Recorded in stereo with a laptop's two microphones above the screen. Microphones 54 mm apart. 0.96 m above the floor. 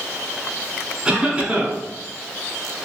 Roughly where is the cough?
Centre.